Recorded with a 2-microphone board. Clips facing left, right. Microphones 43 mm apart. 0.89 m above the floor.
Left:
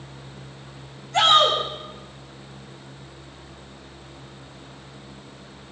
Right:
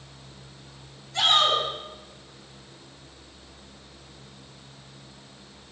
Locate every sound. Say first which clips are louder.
1.1 s a shout: left 5 dB; 75° left (ahead or behind), 6 m